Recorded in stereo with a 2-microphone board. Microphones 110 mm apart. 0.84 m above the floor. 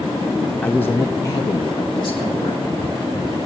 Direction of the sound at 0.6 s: 10° left (ahead or behind).